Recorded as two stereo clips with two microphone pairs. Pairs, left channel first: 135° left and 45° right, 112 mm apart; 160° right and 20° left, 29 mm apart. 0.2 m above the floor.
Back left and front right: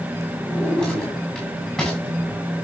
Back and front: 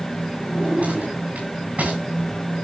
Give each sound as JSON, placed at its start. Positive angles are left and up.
{"t": 0.5, "sound": "a drawer", "azimuth_deg": 45, "distance_m": 8.0}